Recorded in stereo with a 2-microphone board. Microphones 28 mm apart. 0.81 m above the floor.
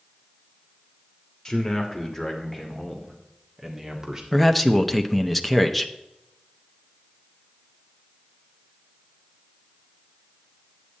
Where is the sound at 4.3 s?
5° left (ahead or behind), 0.8 m.